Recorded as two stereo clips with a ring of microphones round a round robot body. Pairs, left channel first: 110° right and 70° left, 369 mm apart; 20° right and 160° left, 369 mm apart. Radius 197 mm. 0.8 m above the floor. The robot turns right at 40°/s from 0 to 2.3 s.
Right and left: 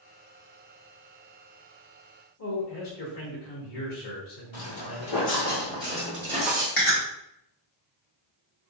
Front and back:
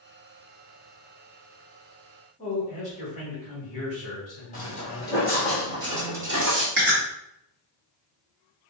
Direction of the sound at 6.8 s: 135° right.